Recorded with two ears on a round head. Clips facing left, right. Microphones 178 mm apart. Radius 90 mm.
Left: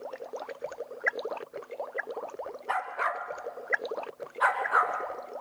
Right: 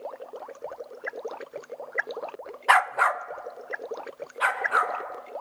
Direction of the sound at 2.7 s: 75° right (ahead or behind).